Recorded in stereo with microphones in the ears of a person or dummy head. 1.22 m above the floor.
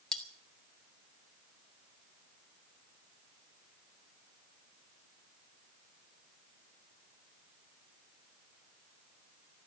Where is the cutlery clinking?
10° left (ahead or behind), 1.5 m.